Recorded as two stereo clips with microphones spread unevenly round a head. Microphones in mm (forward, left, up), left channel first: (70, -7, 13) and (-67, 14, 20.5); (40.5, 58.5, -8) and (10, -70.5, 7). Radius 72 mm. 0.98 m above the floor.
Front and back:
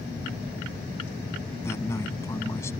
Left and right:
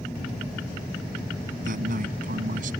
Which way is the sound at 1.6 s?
80° right.